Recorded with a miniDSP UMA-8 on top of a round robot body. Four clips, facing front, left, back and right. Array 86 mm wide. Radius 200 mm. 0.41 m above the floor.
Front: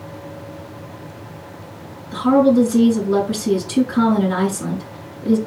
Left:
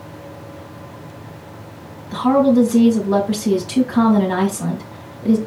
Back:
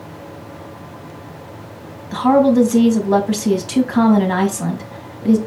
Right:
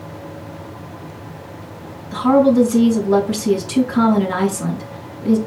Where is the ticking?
I don't hear ticking.